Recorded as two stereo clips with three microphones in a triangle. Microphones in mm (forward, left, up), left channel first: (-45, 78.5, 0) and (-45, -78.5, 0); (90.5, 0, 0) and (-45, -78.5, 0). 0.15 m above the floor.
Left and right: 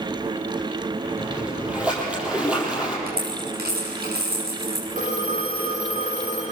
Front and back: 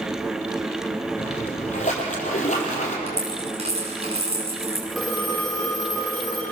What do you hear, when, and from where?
1.2 s a splash: 5° right, 5 m
3.1 s a dropped coin: 100° right, 8.5 m
4.9 s a phone ringing: 60° right, 9 m